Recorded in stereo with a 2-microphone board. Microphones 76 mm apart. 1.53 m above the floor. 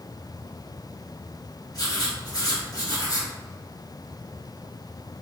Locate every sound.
1.7 s writing: 55° left (ahead or behind), 1.4 m